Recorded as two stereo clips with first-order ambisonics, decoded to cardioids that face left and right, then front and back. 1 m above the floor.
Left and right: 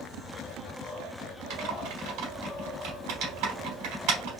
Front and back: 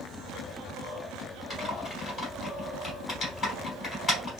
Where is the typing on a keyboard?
75° right, 3 m.